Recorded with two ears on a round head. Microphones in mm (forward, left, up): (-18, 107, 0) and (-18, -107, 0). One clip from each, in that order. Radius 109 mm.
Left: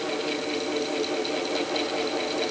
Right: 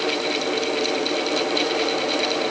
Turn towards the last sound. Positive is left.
No sound to turn to.